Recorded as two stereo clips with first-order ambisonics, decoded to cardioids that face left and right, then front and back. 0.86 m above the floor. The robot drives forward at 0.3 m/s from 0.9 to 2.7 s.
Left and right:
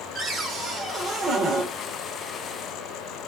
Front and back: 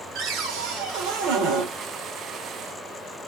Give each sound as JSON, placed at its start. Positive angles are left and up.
{"t": 0.1, "sound": "a cupboard door", "azimuth_deg": -155, "distance_m": 1.2}